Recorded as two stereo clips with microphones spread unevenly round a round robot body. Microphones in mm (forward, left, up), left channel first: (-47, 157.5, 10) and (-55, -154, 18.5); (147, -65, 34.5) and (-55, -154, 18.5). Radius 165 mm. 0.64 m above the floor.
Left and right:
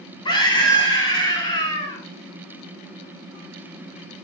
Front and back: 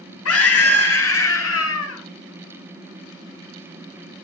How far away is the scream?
About 4.5 m.